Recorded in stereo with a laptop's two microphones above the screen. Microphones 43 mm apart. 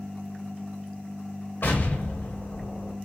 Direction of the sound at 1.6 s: 65° left (ahead or behind).